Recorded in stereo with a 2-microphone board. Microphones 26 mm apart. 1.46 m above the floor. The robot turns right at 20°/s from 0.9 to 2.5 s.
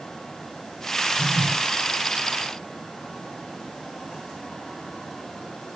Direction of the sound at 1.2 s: 5° right (ahead or behind).